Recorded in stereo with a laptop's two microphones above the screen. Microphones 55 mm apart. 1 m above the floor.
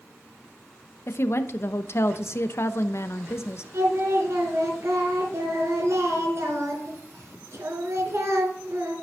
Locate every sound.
1.1 s a woman speaking: 50° left (ahead or behind), 0.8 m
3.7 s singing: 55° right (ahead or behind), 3 m